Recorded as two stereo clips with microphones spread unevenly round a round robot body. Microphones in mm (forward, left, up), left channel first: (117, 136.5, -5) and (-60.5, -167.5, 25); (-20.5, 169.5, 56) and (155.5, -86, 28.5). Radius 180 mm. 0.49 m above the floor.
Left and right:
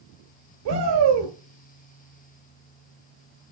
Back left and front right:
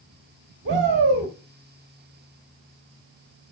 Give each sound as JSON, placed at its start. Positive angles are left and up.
{"t": 0.7, "sound": "a shout", "azimuth_deg": -110, "distance_m": 1.9}